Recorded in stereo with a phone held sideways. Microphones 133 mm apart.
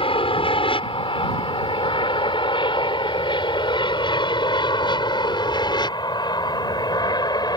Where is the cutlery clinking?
I don't hear cutlery clinking.